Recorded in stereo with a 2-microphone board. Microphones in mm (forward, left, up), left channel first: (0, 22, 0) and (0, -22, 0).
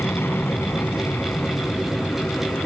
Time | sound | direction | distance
0.0 | an aircraft | 60° left (ahead or behind) | ?